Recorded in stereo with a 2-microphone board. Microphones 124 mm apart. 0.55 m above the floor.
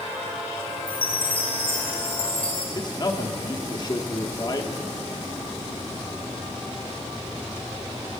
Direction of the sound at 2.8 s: 35° left (ahead or behind).